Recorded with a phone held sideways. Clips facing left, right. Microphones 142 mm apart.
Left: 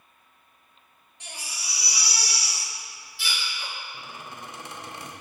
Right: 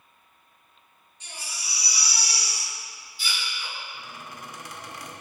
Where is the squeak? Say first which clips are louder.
Left 1 dB; 25° left (ahead or behind), 1.4 m.